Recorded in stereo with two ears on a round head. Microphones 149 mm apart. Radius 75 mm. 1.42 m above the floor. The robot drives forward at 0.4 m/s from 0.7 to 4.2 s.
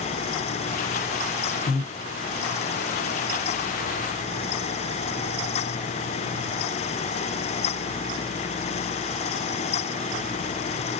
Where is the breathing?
40° left (ahead or behind), 1.6 m.